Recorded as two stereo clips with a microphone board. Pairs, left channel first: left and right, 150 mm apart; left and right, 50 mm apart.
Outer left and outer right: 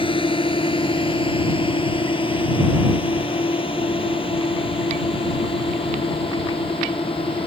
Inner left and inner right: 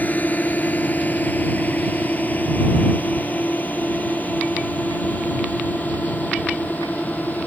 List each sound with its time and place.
0.0 s a drone: 35° left (ahead or behind)